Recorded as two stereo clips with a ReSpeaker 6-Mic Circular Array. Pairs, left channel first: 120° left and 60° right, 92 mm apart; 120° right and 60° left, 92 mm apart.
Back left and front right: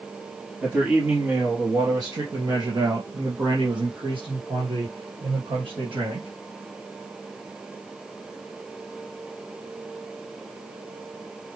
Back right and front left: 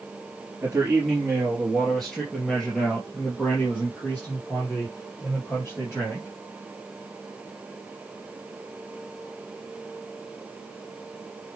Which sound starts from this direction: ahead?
A man speaking, at 0.6 s.